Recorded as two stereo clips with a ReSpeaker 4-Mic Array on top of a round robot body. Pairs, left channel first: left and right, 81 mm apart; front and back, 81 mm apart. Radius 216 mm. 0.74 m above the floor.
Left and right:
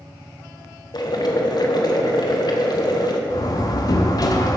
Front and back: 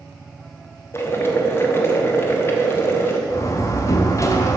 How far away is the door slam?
About 0.9 m.